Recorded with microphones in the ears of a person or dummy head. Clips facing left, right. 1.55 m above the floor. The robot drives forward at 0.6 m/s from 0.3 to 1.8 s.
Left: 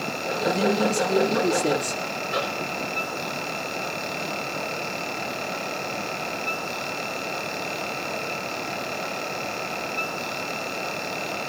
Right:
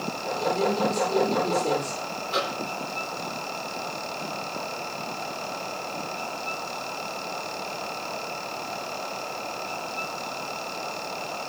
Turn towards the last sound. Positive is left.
turn(degrees=25)  # may be behind; listen again after turning